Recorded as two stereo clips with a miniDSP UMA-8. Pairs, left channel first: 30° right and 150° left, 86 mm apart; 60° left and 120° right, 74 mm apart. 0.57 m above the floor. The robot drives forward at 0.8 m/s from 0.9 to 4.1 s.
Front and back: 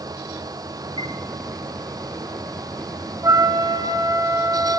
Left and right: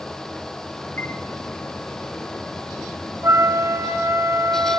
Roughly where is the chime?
Ahead.